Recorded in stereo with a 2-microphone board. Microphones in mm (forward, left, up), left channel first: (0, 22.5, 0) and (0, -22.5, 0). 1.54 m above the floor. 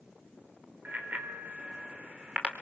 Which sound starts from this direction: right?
A bicycle bell, at 0.8 s.